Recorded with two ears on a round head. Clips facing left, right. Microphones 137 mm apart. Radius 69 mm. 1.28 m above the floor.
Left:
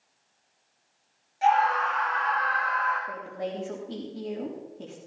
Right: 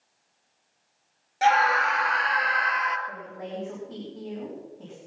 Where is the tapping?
I don't hear tapping.